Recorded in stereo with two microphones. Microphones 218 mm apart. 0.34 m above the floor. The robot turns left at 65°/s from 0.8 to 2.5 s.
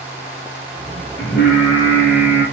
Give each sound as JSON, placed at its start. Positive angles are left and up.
{"t": 1.2, "sound": "singing", "azimuth_deg": 60, "distance_m": 2.5}